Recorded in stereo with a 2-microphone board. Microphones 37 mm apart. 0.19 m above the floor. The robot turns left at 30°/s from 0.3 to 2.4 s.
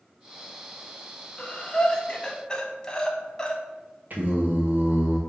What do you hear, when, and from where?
1.4 s breathing: 25° left (ahead or behind), 0.5 m; by 3.6 s 20° left (ahead or behind), 0.5 m
4.1 s singing: 55° right (ahead or behind), 0.8 m